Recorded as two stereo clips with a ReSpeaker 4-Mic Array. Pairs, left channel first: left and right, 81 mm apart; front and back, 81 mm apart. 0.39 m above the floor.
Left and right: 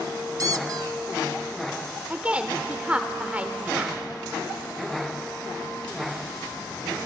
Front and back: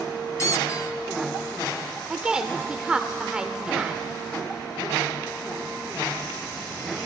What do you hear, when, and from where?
0.4 s a squeak: 50° right, 0.5 m
2.1 s a woman speaking: 120° right, 1.1 m